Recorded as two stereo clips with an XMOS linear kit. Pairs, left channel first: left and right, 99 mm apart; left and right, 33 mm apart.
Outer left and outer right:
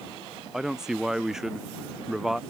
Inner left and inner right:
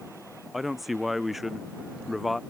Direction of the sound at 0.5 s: 5° right (ahead or behind).